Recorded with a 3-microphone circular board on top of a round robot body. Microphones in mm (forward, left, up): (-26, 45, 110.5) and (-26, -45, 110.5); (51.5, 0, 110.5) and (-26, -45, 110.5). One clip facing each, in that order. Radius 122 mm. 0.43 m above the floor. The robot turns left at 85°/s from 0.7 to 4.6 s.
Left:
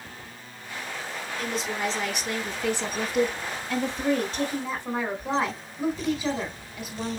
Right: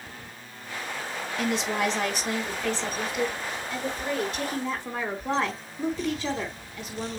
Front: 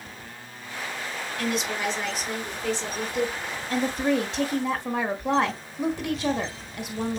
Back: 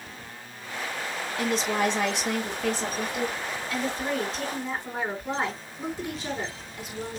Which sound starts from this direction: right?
A woman speaking, at 1.4 s.